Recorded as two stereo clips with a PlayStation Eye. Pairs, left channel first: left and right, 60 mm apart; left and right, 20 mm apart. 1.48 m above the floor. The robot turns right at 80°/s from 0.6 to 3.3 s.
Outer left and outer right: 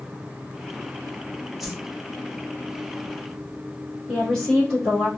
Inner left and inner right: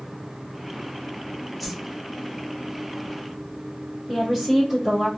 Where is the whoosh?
5° right (ahead or behind), 1.0 m; by 1.8 s 20° right (ahead or behind), 1.0 m.